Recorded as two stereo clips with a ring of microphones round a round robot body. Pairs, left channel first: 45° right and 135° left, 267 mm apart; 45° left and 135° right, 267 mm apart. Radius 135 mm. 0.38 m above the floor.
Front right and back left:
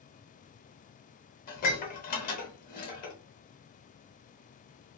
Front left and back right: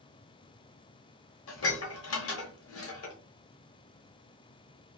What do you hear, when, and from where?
1.5 s dishes clattering: 10° left, 1.0 m